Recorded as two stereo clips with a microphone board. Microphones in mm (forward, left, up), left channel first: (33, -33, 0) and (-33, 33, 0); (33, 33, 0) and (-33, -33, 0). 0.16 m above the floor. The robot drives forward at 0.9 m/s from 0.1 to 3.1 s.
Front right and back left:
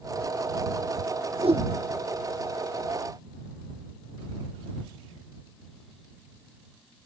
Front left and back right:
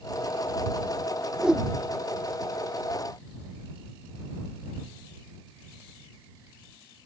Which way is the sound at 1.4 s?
145° left.